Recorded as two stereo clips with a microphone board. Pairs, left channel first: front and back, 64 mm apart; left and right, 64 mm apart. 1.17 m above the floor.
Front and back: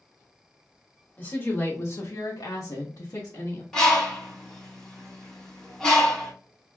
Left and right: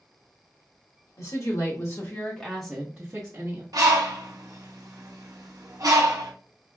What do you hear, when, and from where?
1.2 s a woman speaking: 70° left, 1.5 m; by 3.6 s 50° right, 1.2 m
3.7 s a bird: 80° right, 0.9 m